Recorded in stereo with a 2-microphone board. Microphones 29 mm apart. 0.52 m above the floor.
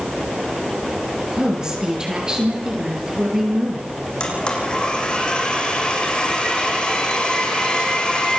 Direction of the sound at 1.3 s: 25° right (ahead or behind).